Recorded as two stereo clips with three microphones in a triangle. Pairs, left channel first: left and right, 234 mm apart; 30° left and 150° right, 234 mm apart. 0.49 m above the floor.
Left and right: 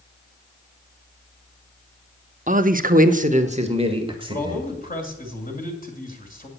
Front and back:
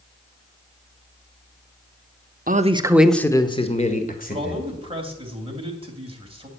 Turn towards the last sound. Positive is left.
turn(degrees=145)